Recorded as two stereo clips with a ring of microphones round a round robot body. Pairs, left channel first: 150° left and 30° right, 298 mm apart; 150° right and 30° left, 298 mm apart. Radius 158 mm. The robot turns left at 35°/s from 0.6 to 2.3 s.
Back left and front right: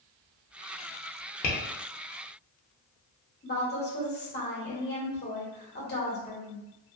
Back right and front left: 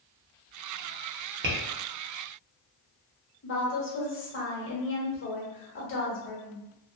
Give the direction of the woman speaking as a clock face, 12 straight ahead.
6 o'clock.